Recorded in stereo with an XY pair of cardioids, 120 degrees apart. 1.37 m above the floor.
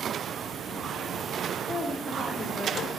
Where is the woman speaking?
20° left, 3 m; by 2.8 s 25° left, 2 m.